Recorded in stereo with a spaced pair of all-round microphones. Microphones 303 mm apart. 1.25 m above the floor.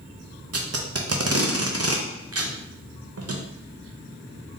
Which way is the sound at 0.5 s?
55° right (ahead or behind).